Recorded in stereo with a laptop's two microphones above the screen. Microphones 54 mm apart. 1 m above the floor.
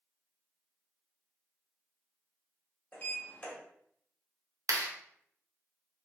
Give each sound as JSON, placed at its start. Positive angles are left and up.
{"t": 2.9, "sound": "a sliding door", "side_deg": 35, "distance_m": 1.1}
{"t": 4.7, "sound": "a clap", "side_deg": -80, "distance_m": 0.6}